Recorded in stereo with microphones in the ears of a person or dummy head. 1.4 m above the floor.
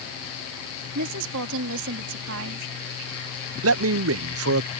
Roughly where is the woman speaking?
Right.